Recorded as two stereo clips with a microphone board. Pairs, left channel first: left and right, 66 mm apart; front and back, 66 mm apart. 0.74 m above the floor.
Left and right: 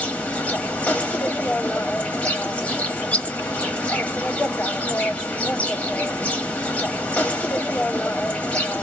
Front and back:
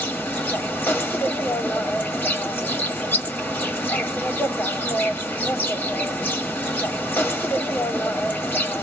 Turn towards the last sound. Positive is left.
turn(degrees=35)